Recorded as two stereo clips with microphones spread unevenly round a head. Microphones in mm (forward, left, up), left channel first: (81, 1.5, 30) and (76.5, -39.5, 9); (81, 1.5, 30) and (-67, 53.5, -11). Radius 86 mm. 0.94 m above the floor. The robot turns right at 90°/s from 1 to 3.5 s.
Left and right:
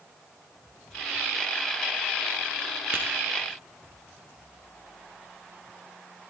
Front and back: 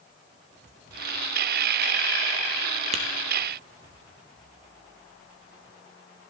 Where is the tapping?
160° right, 1.3 m; by 3.0 s 150° right, 1.3 m.